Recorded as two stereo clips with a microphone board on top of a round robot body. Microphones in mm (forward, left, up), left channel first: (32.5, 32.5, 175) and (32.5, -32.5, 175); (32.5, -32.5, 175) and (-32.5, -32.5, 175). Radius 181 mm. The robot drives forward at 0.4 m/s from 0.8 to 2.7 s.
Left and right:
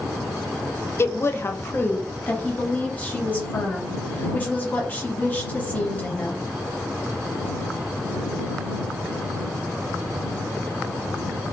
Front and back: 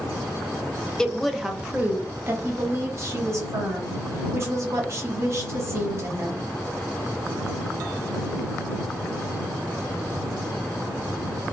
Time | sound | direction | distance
1.0 | a woman speaking | 75° left | 0.7 m